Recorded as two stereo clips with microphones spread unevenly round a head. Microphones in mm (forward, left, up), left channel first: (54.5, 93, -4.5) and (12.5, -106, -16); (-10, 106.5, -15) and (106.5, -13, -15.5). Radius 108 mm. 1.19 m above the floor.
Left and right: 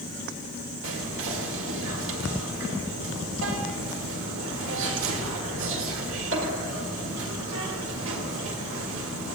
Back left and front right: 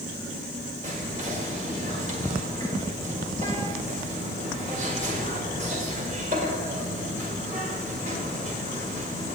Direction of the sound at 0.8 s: 100° right.